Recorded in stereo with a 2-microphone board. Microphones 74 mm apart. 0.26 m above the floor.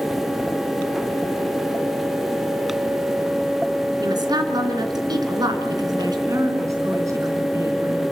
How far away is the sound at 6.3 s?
About 3 m.